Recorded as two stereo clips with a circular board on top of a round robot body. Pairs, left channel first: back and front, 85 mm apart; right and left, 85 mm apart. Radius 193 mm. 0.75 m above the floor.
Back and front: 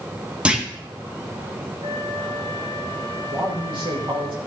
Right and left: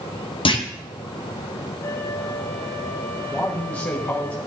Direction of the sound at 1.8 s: 30° right.